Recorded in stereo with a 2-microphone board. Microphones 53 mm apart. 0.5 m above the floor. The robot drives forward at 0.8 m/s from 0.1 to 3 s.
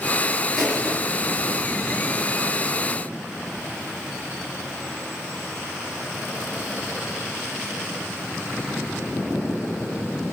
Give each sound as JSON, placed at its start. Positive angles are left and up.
{"t": 0.6, "sound": "crushing", "side_deg": 10, "distance_m": 6.0}